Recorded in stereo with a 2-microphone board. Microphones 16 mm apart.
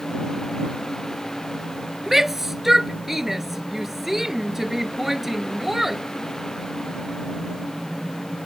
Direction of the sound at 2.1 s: 15° right (ahead or behind).